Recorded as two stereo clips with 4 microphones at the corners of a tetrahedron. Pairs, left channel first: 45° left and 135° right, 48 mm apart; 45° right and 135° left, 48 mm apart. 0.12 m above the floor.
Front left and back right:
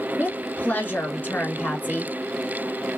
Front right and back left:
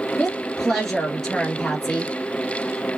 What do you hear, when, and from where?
0.2 s a woman speaking: 35° left, 1.5 m